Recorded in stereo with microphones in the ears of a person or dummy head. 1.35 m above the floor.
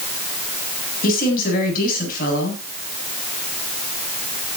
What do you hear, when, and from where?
1.0 s a woman speaking: 60° left (ahead or behind), 8.5 m